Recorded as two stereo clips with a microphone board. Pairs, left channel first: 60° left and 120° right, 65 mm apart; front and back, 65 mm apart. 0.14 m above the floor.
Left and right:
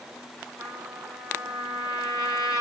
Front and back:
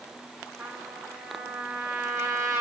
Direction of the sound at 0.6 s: 110° right.